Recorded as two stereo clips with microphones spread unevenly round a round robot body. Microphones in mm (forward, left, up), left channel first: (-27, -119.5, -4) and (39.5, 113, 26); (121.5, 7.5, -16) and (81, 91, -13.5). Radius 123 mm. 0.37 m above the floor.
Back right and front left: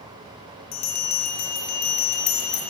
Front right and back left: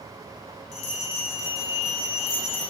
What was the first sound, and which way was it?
A bell, 120° right.